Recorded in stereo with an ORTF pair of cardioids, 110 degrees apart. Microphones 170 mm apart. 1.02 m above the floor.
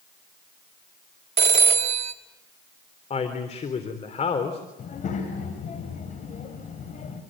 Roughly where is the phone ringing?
Ahead right.